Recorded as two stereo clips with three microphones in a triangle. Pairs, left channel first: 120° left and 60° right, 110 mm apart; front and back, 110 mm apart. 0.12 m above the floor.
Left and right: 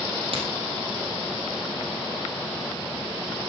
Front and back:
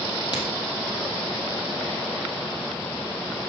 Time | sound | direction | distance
0.3 | a crack | 40° right | 3.5 m